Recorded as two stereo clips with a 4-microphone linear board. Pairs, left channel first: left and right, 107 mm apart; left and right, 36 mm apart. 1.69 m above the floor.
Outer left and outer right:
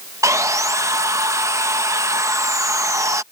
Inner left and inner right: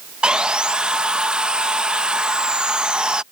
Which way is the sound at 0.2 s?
30° right (ahead or behind).